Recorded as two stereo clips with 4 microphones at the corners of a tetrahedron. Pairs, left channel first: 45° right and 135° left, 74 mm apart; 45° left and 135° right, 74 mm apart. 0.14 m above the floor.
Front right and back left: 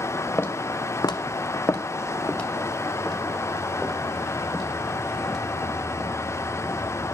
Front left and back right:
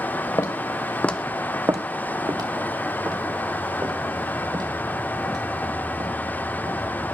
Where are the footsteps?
15° left, 1.1 m; by 6.9 s 135° right, 6.5 m.